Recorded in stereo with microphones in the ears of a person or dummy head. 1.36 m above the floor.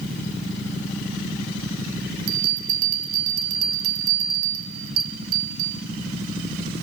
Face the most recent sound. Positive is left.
turn(degrees=-55)  # may be behind; listen again after turning